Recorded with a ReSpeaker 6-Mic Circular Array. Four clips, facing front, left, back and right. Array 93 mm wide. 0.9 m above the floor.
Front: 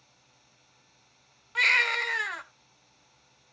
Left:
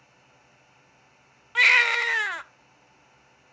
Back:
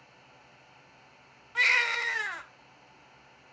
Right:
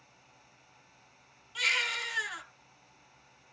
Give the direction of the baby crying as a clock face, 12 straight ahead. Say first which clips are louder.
Left 12 dB, front 1 dB; 9 o'clock.